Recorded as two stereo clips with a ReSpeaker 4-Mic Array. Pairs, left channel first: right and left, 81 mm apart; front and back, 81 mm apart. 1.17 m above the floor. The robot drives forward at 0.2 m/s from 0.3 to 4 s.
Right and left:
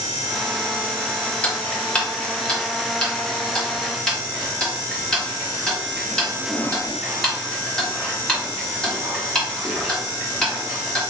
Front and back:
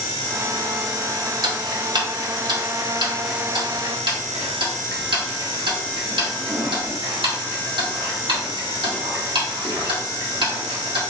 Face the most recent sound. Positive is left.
turn(degrees=-170)